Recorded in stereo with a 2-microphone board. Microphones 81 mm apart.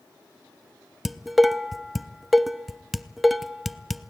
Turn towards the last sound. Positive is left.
turn(degrees=0)  # may be behind; listen again after turning